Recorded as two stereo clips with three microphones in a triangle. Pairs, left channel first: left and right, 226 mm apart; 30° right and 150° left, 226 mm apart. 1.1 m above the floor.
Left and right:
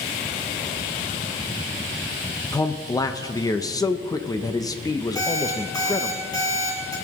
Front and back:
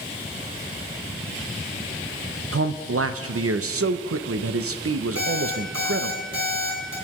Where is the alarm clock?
165° left, 4 m.